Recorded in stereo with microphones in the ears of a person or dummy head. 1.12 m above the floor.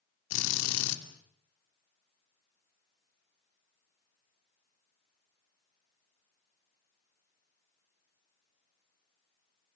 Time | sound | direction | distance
0.3 | a drill | 80° left | 2.5 m